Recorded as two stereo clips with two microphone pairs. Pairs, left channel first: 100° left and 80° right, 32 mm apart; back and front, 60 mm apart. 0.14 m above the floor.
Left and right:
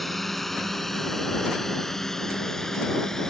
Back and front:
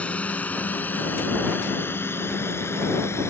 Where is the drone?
Straight behind; by 3.3 s 170° left.